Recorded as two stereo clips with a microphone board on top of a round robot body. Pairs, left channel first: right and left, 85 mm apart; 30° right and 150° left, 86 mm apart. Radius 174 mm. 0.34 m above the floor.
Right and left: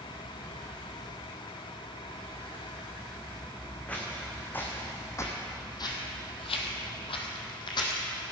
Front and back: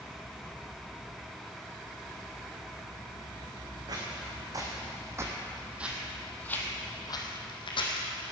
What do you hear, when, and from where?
3.9 s footsteps: 165° right, 2.5 m; by 8.1 s 50° right, 1.8 m